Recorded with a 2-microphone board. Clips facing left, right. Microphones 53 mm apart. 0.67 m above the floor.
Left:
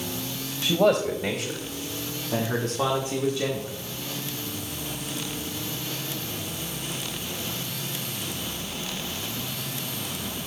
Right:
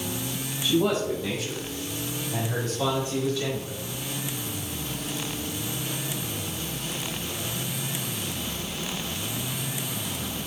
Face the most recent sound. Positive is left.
turn(degrees=10)  # may be behind; listen again after turning